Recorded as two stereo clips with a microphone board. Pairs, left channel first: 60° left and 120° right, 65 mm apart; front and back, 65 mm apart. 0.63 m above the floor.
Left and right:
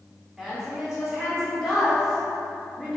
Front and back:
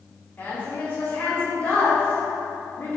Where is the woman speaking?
40° right, 1.6 m.